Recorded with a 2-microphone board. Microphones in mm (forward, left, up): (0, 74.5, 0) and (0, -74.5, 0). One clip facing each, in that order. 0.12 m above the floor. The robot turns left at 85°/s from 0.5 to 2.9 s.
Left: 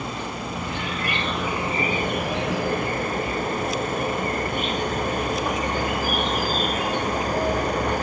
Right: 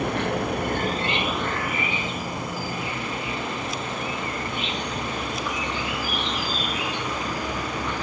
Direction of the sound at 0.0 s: 105° right.